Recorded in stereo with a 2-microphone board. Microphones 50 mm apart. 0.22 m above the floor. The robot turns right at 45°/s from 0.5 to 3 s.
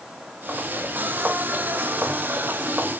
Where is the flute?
No flute in this recording.